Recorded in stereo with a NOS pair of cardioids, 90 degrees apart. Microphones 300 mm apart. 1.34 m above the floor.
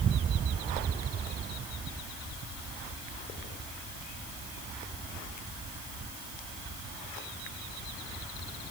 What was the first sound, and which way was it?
Only background noise.